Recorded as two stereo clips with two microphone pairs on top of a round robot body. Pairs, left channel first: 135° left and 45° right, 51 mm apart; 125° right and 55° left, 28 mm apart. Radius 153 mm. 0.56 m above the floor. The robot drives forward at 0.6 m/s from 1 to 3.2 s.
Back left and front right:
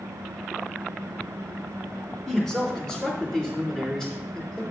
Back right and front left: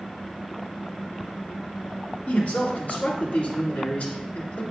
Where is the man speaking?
135° right, 2.5 m; by 4.6 s 140° right, 3 m.